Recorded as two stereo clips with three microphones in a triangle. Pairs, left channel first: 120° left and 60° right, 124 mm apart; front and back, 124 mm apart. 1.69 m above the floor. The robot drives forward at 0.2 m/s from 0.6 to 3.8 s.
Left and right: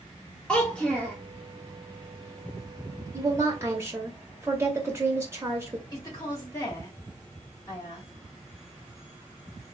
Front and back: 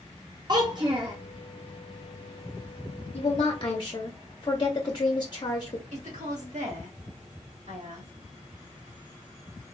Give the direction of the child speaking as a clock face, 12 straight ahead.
5 o'clock.